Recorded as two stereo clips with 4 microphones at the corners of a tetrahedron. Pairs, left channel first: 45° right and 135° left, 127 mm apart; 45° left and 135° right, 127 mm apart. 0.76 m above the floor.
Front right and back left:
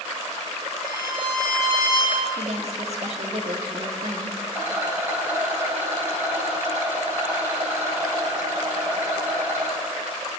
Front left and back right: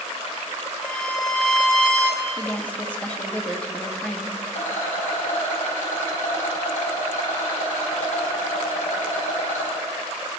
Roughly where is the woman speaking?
Behind left.